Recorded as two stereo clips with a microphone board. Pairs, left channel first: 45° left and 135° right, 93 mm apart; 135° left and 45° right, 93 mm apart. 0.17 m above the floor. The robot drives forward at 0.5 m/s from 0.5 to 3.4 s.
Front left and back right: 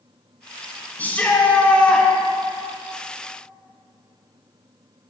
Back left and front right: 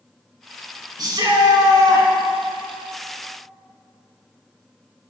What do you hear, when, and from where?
1.0 s a shout: 25° right, 2.5 m; by 2.1 s 30° right, 2 m